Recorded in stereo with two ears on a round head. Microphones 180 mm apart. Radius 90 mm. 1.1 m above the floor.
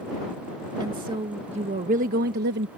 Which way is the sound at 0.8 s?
25° right (ahead or behind).